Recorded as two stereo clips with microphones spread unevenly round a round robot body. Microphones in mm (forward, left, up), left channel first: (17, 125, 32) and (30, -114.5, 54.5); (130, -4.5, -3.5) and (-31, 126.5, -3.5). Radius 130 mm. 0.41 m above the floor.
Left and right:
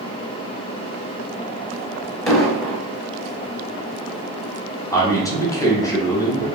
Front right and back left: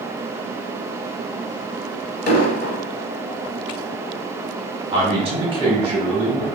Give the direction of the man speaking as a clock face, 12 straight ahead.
7 o'clock.